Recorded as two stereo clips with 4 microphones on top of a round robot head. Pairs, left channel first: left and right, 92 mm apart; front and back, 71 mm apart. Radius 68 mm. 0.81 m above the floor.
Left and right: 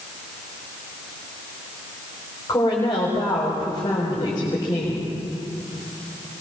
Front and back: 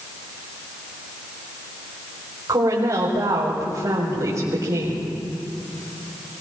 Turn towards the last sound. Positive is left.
turn(degrees=150)